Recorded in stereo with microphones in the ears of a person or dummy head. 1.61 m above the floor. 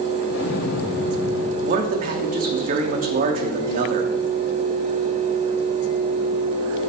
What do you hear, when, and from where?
0.3 s an explosion: 60° left (ahead or behind), 0.9 m
1.6 s a man speaking: 35° right (ahead or behind), 0.7 m